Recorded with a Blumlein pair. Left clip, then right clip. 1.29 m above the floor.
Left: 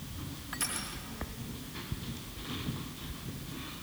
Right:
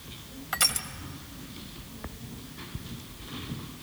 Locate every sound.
0.5 s crushing: 65° right, 1.7 m